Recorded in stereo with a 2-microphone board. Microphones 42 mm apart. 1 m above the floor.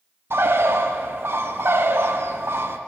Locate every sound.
0.3 s a bird: 70° right (ahead or behind), 0.5 m